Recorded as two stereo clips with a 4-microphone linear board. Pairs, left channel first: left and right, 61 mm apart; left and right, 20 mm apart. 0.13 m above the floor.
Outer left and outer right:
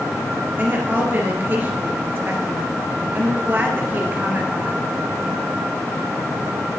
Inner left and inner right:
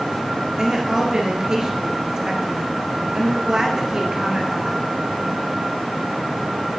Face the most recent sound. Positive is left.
turn(degrees=-35)  # may be behind; listen again after turning